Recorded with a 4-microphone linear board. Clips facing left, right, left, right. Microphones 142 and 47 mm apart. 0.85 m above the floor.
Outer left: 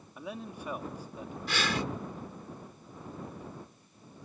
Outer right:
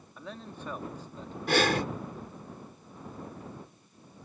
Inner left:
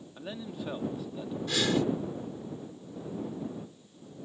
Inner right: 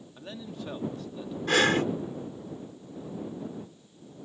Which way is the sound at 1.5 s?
55° right (ahead or behind).